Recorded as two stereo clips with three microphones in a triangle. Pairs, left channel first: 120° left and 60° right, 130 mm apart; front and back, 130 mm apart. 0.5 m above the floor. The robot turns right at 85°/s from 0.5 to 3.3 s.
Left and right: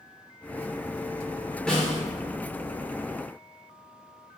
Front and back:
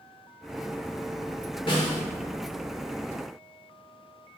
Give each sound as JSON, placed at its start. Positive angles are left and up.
{"t": 1.7, "sound": "a snare drum", "azimuth_deg": 40, "distance_m": 1.0}